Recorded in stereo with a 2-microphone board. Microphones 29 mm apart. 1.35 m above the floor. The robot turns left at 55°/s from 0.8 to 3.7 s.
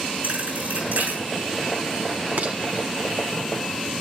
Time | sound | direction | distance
0.2 | a thud | 75° right (ahead or behind) | 7 m
2.4 | dishes clattering | 70° right (ahead or behind) | 3 m